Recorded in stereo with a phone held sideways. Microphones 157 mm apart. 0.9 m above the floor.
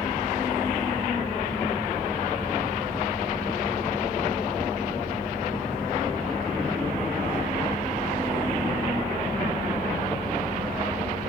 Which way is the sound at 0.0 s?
60° left (ahead or behind).